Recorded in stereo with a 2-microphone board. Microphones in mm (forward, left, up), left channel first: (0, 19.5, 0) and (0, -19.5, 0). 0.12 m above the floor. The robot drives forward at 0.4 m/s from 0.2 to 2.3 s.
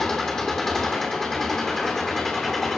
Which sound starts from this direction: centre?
An engine running, at 0.0 s.